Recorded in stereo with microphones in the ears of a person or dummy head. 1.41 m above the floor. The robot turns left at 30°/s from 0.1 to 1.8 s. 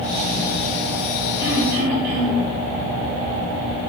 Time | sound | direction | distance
1.4 | throat clearing | 20° right (ahead or behind) | 1.5 m